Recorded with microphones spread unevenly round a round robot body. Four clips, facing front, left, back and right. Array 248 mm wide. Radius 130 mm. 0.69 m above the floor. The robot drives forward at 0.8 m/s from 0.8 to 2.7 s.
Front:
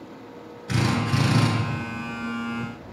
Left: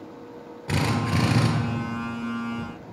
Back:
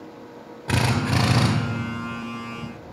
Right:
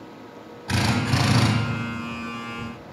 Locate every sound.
0.7 s a drill: 160° left, 1.2 m; by 1.5 s 165° left, 1.7 m